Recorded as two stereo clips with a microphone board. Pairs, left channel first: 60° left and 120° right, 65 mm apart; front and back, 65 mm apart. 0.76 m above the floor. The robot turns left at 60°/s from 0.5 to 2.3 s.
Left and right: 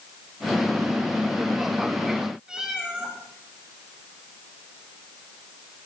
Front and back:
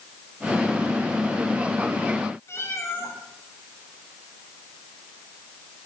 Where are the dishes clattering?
I don't hear dishes clattering.